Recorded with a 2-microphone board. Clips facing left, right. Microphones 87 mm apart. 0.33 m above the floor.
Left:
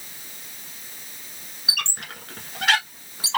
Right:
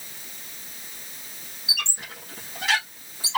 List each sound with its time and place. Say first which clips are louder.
1.7 s a squeak: left 2 dB; 65° left (ahead or behind), 1.4 m